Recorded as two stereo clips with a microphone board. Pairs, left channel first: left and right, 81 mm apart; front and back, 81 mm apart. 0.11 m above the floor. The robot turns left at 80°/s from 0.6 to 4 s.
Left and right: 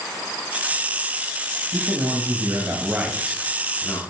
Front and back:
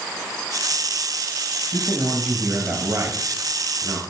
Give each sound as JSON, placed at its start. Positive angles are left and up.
{"t": 1.7, "sound": "a man speaking", "azimuth_deg": -60, "distance_m": 1.8}